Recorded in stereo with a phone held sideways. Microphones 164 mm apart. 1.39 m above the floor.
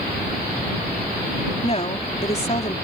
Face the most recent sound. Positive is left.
turn(degrees=40)  # may be behind; listen again after turning